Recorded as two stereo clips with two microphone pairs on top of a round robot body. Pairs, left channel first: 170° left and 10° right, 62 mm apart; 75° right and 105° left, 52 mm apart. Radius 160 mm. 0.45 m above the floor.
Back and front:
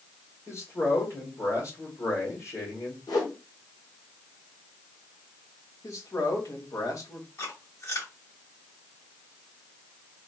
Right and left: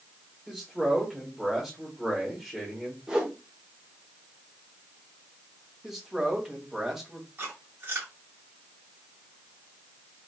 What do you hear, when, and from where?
0.5 s a man speaking: 170° right, 2 m
3.1 s a whoosh: straight behind, 1.3 m
5.8 s a man speaking: 170° right, 1.6 m
7.4 s chewing: 150° left, 3 m